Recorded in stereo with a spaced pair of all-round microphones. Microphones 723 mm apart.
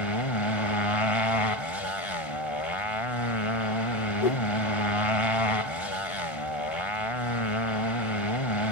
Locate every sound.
0.0 s a motorcycle: 45° left (ahead or behind)
4.2 s a whoosh: 55° left (ahead or behind)